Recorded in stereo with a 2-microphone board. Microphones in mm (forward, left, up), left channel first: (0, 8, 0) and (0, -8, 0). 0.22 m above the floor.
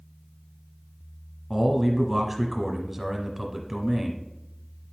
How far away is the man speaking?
About 1.3 m.